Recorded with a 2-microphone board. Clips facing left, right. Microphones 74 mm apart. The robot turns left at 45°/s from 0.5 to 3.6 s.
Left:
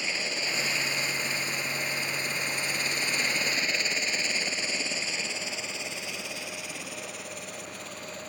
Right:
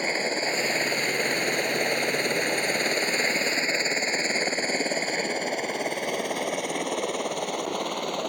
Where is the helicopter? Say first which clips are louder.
Right 6 dB; 45° right (ahead or behind); by 8.3 s 70° right (ahead or behind).